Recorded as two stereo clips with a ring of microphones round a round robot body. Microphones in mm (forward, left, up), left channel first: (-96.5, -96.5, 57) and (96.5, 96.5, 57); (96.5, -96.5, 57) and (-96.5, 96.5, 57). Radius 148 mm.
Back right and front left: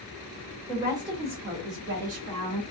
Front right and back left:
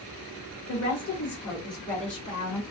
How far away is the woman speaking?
About 1.2 m.